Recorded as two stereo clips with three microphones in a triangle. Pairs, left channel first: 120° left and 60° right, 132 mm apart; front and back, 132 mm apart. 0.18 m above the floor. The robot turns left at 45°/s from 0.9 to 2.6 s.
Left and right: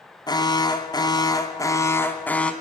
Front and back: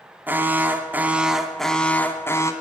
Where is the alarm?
120° left, 2 m; by 2.5 s 45° left, 2 m.